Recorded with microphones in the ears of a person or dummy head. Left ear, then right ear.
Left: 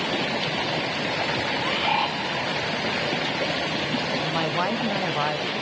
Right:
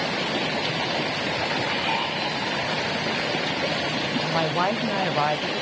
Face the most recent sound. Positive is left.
turn(degrees=-10)  # may be behind; listen again after turning